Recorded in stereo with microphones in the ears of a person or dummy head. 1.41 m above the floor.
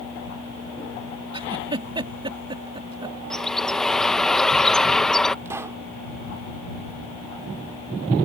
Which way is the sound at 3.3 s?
Centre (ahead or behind).